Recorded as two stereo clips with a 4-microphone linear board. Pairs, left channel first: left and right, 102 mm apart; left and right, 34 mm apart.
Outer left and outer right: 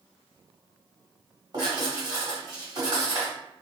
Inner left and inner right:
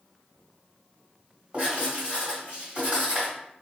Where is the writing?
45° right (ahead or behind), 1.6 m.